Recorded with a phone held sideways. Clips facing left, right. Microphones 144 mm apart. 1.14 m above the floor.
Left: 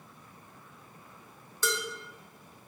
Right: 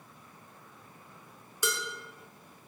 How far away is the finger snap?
No finger snap in this recording.